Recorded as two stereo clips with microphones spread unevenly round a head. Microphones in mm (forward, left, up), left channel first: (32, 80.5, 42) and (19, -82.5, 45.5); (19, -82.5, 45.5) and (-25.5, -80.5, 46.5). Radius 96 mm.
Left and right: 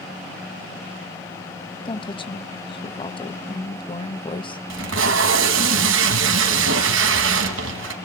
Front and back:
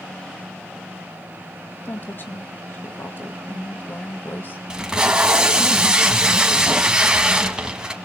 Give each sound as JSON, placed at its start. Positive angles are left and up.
{"t": 1.9, "sound": "a woman speaking", "azimuth_deg": 30, "distance_m": 1.4}
{"t": 4.7, "sound": "tape being pulled", "azimuth_deg": -110, "distance_m": 2.0}